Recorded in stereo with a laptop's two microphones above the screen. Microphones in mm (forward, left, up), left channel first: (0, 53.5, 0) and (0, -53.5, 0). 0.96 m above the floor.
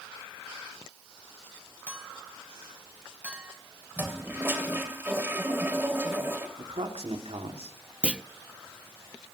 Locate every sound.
1.9 s a clink: 15° right (ahead or behind), 3.5 m
4.0 s a toilet flushing: 20° right (ahead or behind), 3 m
6.6 s a man speaking: 70° right (ahead or behind), 2.5 m
8.0 s a clunk: 10° right (ahead or behind), 0.6 m